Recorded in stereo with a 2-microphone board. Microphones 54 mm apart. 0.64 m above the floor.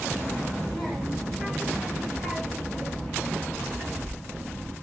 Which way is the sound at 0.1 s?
5° right (ahead or behind).